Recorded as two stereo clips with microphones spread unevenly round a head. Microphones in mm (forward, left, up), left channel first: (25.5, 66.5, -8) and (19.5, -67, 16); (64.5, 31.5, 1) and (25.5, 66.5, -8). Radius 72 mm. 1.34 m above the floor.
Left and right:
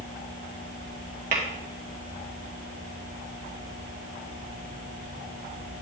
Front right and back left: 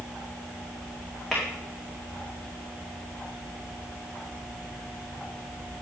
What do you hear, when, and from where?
1.3 s tapping: 130° right, 2 m